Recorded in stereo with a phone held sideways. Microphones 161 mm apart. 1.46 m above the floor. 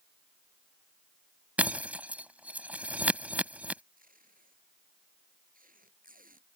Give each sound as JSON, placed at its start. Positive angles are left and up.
{"t": 1.6, "sound": "breaking glass", "side_deg": -10}
{"t": 4.0, "sound": "tape being pulled", "side_deg": -60}